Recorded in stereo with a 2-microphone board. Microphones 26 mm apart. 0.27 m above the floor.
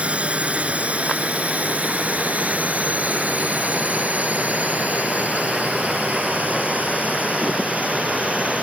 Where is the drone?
55° right (ahead or behind); by 8.6 s 65° right (ahead or behind).